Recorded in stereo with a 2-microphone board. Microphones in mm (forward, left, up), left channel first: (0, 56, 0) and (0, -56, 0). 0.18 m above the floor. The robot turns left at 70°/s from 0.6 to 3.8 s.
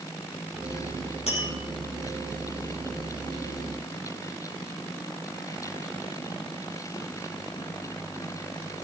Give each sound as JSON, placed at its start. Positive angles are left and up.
{"t": 1.3, "sound": "tapping", "side_deg": 65, "distance_m": 4.5}